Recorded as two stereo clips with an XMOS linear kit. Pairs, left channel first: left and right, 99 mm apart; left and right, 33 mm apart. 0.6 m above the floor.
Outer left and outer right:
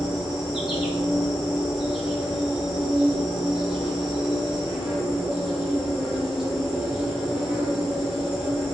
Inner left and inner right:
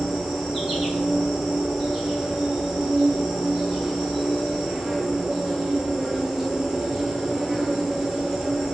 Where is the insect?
5° right (ahead or behind), 1.2 m.